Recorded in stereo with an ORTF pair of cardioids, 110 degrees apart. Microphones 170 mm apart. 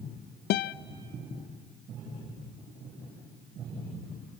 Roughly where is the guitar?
Left.